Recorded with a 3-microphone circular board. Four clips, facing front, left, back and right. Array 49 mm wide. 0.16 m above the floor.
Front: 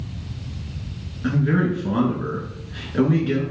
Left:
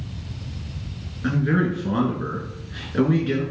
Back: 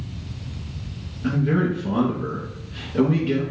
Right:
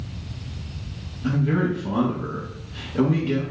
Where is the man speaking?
60° left, 2 m.